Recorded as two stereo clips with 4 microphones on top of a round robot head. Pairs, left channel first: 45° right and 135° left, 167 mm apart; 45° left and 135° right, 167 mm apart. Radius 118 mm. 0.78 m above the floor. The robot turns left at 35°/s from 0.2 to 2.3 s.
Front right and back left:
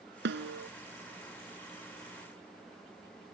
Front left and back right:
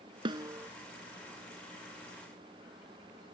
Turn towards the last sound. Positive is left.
turn(degrees=85)